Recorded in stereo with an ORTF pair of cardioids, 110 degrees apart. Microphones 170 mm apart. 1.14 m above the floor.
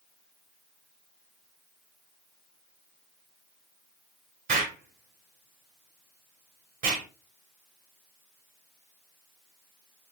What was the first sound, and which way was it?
An explosion, 55° right.